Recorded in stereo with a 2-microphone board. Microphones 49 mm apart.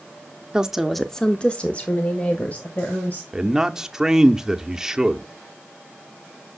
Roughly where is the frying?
No frying in this recording.